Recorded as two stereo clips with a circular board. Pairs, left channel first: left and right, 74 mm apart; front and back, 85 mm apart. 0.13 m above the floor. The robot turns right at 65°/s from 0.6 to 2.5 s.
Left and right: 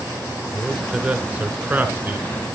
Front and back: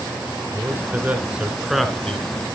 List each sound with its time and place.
0.5 s a man speaking: 170° right, 1.8 m; by 2.3 s 60° right, 1.8 m